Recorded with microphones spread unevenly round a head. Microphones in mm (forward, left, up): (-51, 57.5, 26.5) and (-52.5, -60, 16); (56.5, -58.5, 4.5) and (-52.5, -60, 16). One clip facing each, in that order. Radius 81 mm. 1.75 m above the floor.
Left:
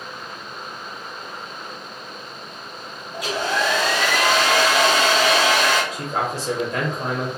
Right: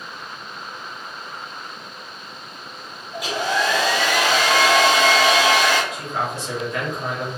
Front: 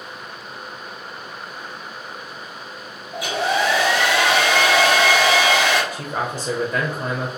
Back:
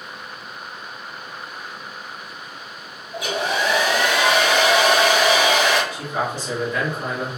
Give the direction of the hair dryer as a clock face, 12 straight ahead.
1 o'clock.